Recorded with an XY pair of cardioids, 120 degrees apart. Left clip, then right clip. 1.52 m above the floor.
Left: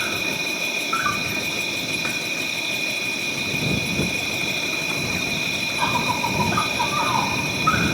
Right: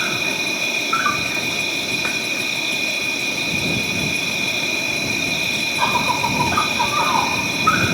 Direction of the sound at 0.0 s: 20° right.